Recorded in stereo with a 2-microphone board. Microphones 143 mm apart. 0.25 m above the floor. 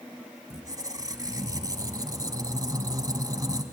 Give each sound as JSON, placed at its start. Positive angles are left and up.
{"t": 0.5, "sound": "a squeak", "side_deg": -25, "distance_m": 1.1}